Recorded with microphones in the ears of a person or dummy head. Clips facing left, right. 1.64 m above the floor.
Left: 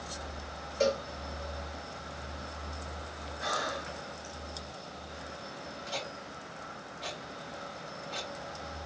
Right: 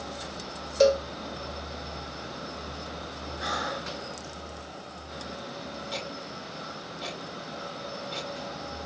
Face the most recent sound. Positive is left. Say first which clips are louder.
# right 4 dB
turn(degrees=-55)  # may be behind; listen again after turning